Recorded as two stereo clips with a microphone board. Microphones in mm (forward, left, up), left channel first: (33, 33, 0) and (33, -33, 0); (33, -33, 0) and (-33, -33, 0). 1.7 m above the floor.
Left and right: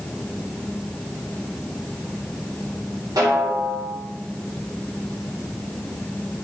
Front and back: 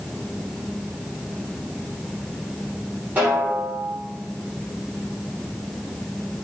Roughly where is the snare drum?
Behind right.